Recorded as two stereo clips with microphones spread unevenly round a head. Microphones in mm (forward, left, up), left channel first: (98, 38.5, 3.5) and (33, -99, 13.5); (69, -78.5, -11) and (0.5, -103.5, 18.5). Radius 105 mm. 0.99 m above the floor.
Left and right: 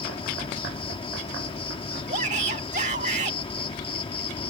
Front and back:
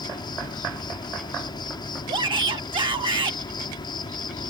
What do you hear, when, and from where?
0.0 s an insect: 10° left
2.1 s a shout: 170° right